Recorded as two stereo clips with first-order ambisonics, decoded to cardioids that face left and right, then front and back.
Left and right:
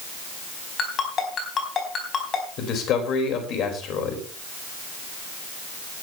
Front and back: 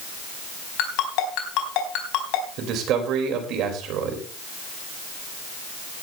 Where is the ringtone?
25° left, 4 m.